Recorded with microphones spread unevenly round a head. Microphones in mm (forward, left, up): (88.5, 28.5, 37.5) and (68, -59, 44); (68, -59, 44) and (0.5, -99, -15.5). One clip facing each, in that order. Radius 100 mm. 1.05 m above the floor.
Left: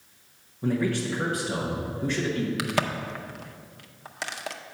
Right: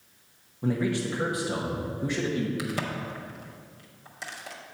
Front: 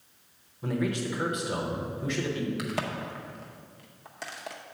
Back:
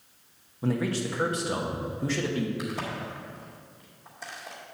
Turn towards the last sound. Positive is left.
turn(degrees=65)